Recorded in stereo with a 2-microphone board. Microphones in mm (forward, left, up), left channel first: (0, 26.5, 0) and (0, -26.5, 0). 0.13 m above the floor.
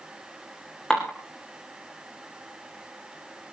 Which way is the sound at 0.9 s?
10° left (ahead or behind).